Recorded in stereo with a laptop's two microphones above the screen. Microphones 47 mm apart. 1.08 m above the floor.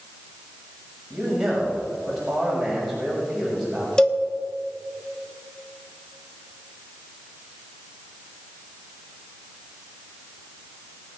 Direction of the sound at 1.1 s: 10° right (ahead or behind).